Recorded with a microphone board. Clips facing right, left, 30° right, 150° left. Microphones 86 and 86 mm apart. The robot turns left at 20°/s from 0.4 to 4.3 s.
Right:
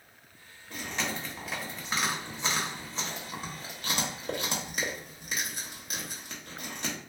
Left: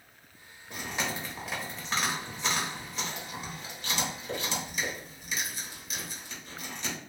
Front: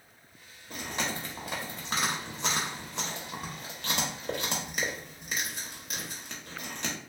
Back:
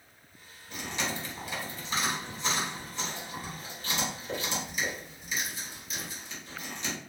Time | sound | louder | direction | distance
0.7 | chewing | even, even | 15° left | 0.8 m